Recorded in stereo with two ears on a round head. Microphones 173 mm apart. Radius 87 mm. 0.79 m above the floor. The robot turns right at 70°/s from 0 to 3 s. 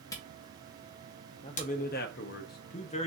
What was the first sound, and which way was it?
A camera shutter, 15° left (ahead or behind).